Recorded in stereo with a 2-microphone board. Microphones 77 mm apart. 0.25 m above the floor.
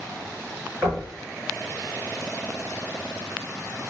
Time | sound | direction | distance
0.8 | knocking | 35° right (ahead or behind) | 2.5 m